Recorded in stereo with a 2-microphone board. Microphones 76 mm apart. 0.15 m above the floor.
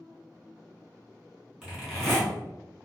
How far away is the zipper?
About 1.7 m.